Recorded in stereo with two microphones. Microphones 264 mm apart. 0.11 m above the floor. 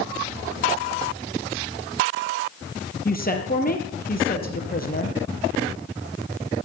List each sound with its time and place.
3.0 s a woman speaking: 35° left (ahead or behind), 3.5 m